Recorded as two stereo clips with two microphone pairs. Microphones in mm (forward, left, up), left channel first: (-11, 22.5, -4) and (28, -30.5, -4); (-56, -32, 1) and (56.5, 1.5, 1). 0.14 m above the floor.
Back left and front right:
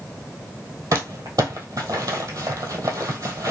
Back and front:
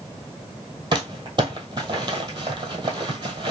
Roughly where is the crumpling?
Ahead right.